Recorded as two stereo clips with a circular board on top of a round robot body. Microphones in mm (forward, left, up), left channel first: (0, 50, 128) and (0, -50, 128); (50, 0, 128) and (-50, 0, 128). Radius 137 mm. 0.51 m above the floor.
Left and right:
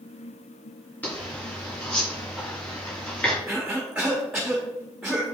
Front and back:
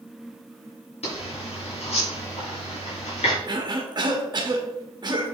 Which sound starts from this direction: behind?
A cough, at 3.5 s.